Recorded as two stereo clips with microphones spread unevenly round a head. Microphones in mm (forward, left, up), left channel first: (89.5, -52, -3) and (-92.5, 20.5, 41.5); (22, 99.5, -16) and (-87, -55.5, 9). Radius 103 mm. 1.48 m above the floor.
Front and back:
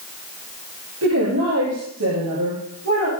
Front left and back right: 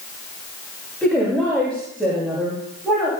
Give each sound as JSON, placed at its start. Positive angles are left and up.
{"t": 1.0, "sound": "a woman speaking", "azimuth_deg": 140, "distance_m": 7.0}